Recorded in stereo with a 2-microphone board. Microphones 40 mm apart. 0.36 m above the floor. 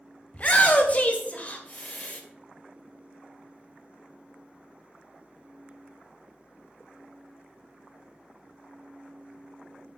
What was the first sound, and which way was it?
A shout, 35° left (ahead or behind).